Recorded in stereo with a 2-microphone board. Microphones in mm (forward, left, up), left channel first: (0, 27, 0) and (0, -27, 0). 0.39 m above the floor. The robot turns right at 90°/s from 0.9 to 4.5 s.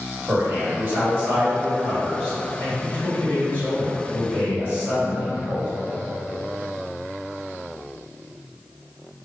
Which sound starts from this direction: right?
A man speaking, at 0.3 s.